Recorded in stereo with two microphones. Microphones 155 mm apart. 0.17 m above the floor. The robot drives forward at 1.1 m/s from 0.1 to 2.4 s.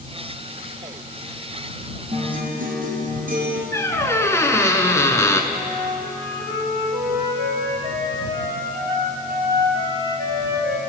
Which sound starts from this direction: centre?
A squeak, at 3.7 s.